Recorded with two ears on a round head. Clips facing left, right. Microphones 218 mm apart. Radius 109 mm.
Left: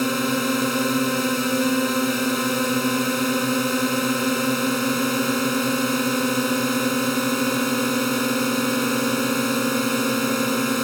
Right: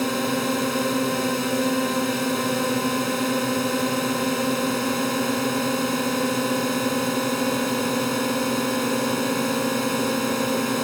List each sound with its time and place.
0.0 s a drone: 10° left (ahead or behind)